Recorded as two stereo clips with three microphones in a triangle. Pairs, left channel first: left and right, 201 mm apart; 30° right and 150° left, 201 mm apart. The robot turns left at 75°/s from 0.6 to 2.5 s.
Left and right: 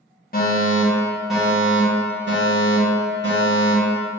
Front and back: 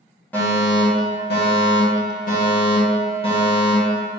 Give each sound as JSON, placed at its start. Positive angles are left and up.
{"t": 0.3, "sound": "a fire alarm", "azimuth_deg": 50, "distance_m": 2.5}